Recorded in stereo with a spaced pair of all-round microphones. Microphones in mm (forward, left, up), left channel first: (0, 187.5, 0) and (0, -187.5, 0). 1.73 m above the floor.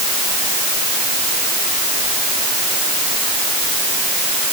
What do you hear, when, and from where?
Only background noise.